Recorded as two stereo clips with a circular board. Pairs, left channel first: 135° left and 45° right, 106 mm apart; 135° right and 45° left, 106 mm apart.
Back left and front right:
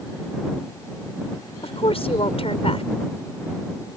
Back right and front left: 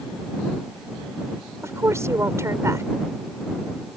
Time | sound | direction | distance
1.6 | a woman speaking | 110° left | ?